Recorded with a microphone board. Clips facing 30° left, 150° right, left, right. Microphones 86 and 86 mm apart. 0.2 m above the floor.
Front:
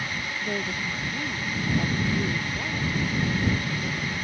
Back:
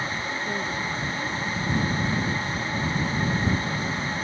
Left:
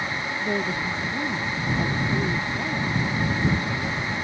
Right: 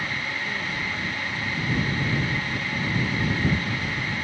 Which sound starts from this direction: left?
A woman speaking, at 0.4 s.